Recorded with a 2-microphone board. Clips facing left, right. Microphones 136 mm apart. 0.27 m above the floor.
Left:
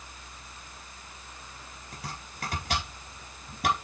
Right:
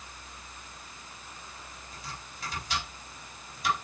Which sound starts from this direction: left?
Chopping, at 1.9 s.